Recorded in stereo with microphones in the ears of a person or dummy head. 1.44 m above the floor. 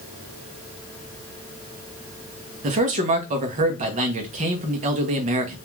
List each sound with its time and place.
2.6 s a man speaking: 35° right (ahead or behind), 0.6 m